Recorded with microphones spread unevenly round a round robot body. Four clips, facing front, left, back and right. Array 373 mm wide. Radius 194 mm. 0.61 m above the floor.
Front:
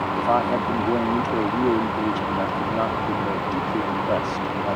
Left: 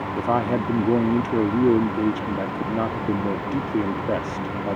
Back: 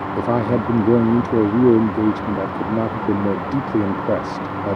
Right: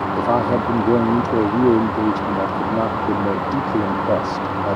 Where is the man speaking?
175° right.